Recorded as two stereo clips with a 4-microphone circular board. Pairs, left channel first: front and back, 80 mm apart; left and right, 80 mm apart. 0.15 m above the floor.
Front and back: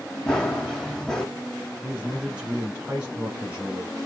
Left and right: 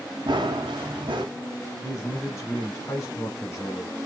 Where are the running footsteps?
85° right, 1.2 m.